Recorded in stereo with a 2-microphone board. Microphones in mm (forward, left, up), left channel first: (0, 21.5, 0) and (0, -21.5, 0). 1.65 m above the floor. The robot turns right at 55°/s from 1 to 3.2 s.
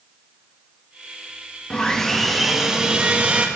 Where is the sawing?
145° left, 1.1 m; by 3.5 s 135° right, 1.1 m.